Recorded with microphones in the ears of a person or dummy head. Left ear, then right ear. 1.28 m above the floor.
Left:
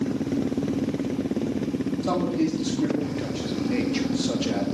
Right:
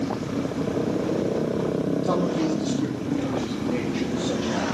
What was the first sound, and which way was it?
A man speaking, 15° left (ahead or behind).